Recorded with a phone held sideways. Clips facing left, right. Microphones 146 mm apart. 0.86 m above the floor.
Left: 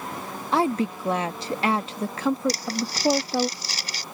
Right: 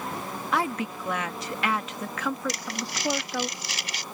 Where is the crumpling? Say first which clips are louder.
Left 5 dB; 35° left (ahead or behind).